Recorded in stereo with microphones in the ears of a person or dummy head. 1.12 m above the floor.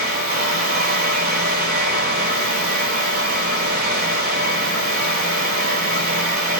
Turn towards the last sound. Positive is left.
turn(degrees=-55)  # may be behind; listen again after turning